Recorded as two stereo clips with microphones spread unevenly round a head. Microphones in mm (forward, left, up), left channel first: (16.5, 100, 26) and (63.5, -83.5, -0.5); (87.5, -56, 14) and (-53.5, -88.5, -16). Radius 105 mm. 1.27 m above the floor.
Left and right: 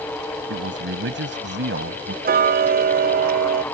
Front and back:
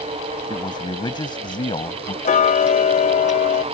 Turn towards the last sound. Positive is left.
turn(degrees=-25)